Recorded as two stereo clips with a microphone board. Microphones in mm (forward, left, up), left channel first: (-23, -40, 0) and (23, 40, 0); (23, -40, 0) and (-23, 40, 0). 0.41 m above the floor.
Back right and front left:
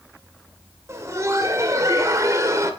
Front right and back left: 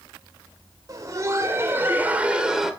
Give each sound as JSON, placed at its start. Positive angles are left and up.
{"t": 0.9, "sound": "laughter", "azimuth_deg": 100, "distance_m": 1.9}